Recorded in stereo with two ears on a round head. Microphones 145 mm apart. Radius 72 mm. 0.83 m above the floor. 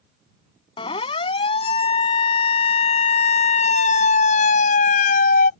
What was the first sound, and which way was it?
A siren, 30° left (ahead or behind).